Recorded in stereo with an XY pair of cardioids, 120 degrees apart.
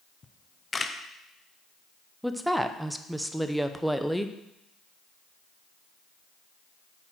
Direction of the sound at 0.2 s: 25° left.